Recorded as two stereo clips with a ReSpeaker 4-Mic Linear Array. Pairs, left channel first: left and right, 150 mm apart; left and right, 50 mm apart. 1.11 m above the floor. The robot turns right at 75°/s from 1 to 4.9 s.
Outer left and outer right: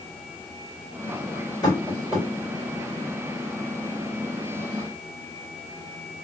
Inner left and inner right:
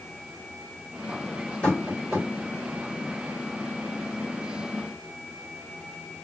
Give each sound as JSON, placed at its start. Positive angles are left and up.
{"t": 1.6, "sound": "tapping", "side_deg": 25, "distance_m": 2.0}